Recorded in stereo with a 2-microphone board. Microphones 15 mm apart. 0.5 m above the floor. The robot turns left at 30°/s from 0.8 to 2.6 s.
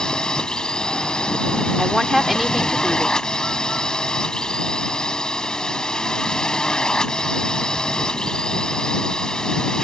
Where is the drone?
115° left; by 9.8 s 60° left.